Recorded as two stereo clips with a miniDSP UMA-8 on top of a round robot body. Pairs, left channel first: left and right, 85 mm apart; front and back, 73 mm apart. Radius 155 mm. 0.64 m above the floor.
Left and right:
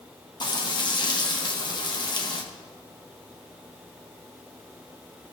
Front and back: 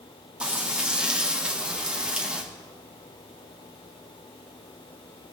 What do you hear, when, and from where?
0.4 s frying: 105° left, 1.6 m